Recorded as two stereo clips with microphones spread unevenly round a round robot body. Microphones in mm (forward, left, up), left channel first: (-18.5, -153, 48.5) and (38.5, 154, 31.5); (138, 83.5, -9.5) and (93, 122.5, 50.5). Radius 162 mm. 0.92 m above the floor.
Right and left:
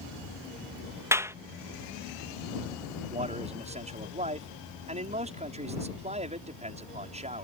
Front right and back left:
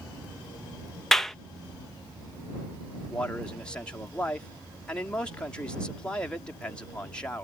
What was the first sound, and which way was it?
A clap, straight ahead.